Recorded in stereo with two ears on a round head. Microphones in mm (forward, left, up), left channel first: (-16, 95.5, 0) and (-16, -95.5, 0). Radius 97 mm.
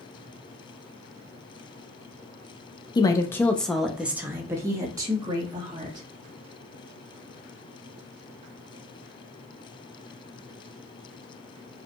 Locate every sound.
3.0 s a woman speaking: 20° left (ahead or behind), 0.6 m; by 6.1 s 20° right (ahead or behind), 1.6 m